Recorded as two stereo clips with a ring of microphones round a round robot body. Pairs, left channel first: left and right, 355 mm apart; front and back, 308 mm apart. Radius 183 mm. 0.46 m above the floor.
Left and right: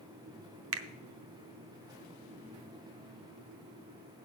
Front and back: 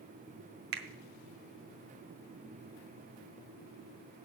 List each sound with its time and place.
0.7 s a finger snap: 130° right, 0.7 m